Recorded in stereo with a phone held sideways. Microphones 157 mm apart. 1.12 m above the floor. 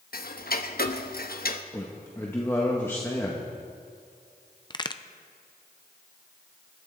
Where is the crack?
25° left (ahead or behind), 0.6 m.